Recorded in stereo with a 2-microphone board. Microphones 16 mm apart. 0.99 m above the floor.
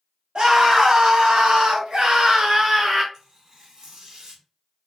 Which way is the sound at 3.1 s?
30° right (ahead or behind).